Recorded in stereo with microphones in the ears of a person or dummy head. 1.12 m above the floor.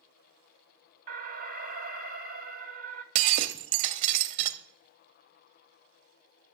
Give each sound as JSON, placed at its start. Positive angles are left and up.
{"t": 1.1, "sound": "an alarm", "side_deg": -45, "distance_m": 0.8}
{"t": 3.1, "sound": "breaking glass", "side_deg": -35, "distance_m": 0.7}